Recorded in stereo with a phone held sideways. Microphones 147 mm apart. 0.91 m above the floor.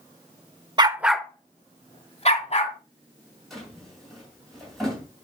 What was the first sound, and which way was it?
A dog barking, 30° right (ahead or behind).